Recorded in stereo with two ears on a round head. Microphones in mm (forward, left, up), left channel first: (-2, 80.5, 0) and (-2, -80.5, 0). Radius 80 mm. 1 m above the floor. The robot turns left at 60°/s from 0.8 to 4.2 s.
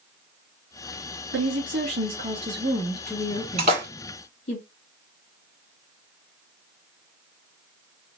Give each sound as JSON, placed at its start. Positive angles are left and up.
{"t": 1.3, "sound": "a woman speaking", "azimuth_deg": -85, "distance_m": 1.6}
{"t": 3.6, "sound": "a splash", "side_deg": -35, "distance_m": 1.5}